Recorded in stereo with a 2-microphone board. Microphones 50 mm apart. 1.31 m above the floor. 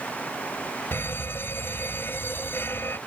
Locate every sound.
0.9 s a fire alarm: 50° left (ahead or behind)